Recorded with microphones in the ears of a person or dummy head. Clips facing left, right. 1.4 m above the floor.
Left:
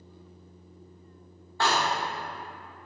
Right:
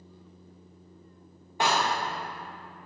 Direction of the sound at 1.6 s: 15° right (ahead or behind).